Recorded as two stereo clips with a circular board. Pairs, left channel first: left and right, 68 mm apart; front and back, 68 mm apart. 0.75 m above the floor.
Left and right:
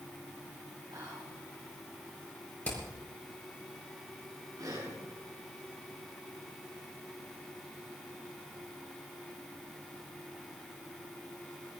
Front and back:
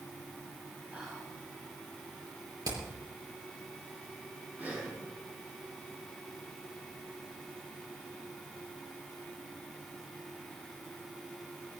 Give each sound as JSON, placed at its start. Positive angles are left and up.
{"t": 0.9, "sound": "whispering", "azimuth_deg": -110, "distance_m": 4.5}
{"t": 2.6, "sound": "hammering", "azimuth_deg": 160, "distance_m": 5.5}
{"t": 4.6, "sound": "breathing", "azimuth_deg": -115, "distance_m": 8.0}